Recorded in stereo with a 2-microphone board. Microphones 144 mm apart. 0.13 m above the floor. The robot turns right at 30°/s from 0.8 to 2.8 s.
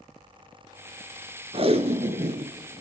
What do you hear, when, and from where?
1.5 s tape being pulled: 45° right (ahead or behind), 0.7 m; by 2.5 s 50° right (ahead or behind), 0.7 m